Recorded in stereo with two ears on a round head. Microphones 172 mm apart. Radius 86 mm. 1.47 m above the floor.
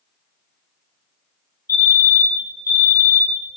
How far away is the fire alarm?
About 4 m.